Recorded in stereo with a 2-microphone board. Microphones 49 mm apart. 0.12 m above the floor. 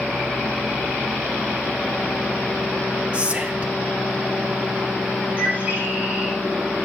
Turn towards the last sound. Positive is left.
turn(degrees=-40)  # may be behind; listen again after turning